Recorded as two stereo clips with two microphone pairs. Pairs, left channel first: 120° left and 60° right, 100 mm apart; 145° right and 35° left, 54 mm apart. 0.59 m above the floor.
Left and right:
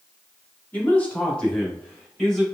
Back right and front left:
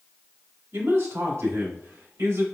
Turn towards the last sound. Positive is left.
turn(degrees=35)